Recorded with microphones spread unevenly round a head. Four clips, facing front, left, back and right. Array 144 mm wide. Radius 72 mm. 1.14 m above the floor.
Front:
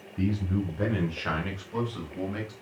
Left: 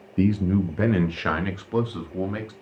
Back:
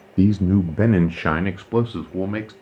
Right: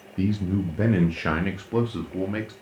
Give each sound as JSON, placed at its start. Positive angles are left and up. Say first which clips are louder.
{"t": 0.2, "sound": "a man speaking", "louder": "left 4 dB, back 11 dB", "azimuth_deg": 160, "distance_m": 0.6}